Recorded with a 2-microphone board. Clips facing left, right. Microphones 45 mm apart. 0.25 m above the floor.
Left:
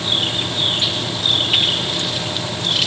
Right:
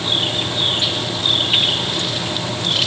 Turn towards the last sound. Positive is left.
No sound to turn to.